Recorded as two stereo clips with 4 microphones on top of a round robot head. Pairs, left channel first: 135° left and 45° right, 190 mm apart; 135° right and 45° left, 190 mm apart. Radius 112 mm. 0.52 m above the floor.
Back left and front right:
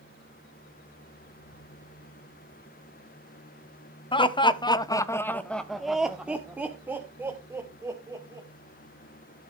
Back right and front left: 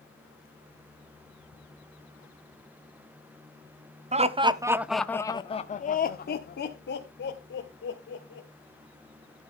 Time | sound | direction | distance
4.1 | laughter | 80° left | 1.1 m